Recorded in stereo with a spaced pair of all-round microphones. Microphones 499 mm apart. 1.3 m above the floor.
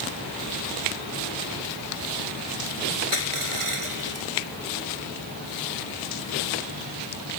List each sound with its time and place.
3.1 s crushing: 80° right